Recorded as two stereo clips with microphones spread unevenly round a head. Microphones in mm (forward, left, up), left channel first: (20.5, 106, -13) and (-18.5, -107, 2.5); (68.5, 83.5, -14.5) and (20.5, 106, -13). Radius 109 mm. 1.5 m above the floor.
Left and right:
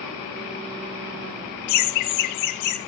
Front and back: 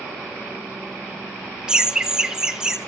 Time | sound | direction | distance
1.7 | laughter | 75° left | 0.6 m